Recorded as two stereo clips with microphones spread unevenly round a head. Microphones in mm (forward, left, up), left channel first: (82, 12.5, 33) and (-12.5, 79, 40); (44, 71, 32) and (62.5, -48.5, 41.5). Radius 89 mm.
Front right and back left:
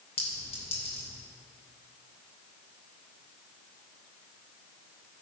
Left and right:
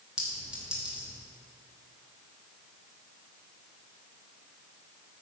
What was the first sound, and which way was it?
A clink, straight ahead.